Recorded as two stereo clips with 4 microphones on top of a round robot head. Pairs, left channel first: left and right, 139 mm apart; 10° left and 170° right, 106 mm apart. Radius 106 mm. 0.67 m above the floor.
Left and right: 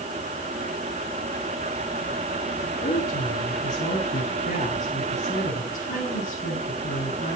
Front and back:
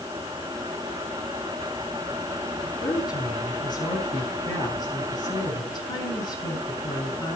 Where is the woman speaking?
60° left, 7.5 m.